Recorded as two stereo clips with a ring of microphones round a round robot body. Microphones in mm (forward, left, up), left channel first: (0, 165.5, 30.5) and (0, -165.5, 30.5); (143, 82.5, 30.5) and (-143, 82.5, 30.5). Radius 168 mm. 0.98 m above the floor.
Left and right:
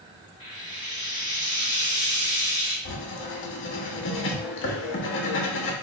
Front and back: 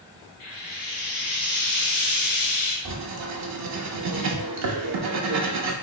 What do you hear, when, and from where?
0.4 s frying: 10° right, 1.3 m
2.9 s writing: 145° left, 0.7 m